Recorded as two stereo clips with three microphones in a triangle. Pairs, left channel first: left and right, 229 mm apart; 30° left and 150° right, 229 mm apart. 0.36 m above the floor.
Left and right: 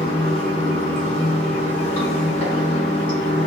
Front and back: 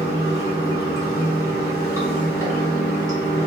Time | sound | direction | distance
0.0 | running water | 140° left | 1.3 m